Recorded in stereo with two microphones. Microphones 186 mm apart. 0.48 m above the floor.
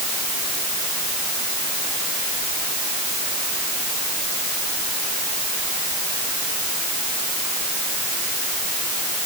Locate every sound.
Only background noise.